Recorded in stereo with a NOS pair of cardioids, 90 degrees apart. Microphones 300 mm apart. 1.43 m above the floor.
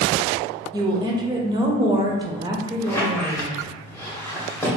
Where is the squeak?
10° left, 0.9 m.